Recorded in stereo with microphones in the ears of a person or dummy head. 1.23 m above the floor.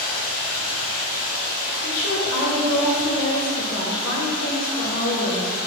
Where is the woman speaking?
75° left (ahead or behind), 0.7 m.